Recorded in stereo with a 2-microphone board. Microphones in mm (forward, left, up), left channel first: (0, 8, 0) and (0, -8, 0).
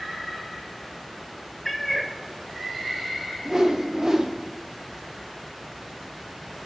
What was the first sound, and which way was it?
A cat meowing, centre (ahead or behind).